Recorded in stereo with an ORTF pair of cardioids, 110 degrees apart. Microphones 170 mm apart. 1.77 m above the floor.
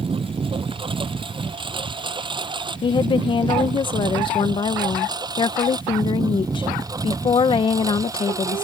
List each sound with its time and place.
0.0 s a lawn mower: 30° right; by 8.6 s 20° right
2.8 s a woman speaking: 30° left